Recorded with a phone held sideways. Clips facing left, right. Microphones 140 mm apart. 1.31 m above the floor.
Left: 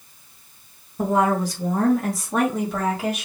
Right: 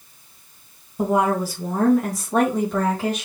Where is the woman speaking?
15° right (ahead or behind), 1.2 m; by 3.2 s 10° left (ahead or behind), 2.5 m.